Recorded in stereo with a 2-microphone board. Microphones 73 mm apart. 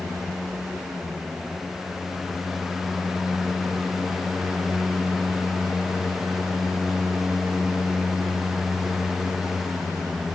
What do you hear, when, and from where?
Only background noise.